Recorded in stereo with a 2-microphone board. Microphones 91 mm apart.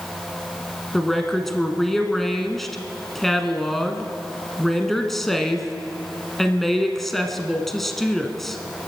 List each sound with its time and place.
0.9 s a woman speaking: 5° left (ahead or behind), 1.4 m